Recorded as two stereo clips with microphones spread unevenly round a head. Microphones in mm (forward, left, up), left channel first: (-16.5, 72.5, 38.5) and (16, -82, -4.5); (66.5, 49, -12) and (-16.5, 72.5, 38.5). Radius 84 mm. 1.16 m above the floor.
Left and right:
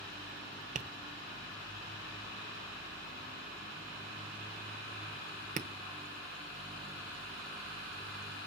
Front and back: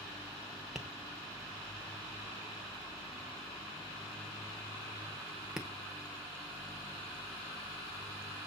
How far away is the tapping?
About 0.9 m.